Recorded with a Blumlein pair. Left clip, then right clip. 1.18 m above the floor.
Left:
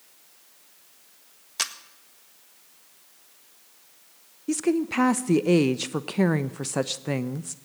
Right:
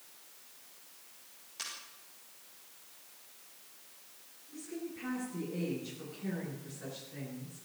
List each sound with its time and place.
1.6 s a camera shutter: 35° left, 1.6 m
4.5 s a woman speaking: 45° left, 0.9 m